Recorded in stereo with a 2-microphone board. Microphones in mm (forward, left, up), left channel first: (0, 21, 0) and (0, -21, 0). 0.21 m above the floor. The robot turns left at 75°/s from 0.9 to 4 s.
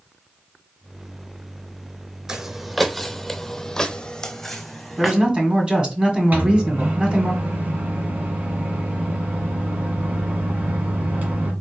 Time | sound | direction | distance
2.3 | footsteps | 15° right (ahead or behind) | 0.7 m
5.0 | a man speaking | 25° right (ahead or behind) | 1.5 m
6.3 | a microwave | 45° right (ahead or behind) | 1.8 m